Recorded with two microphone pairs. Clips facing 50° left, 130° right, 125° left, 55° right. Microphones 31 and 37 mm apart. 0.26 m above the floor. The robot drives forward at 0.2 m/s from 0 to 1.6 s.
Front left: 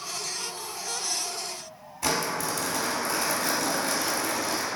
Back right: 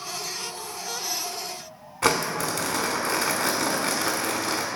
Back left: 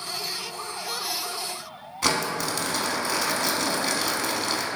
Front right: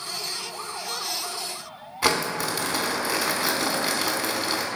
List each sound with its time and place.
2.0 s crumpling: 135° right, 0.5 m